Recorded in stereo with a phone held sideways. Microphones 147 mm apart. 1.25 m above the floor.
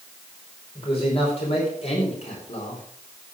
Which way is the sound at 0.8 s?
40° left (ahead or behind).